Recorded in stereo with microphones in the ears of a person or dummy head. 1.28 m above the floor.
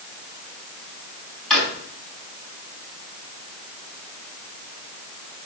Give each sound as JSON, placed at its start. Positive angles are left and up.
{"t": 1.5, "sound": "a drawer", "side_deg": 5, "distance_m": 4.5}